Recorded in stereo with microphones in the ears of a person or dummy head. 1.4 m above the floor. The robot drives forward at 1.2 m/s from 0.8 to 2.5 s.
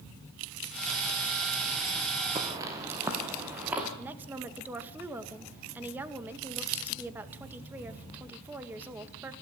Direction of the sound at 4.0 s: 10° right (ahead or behind).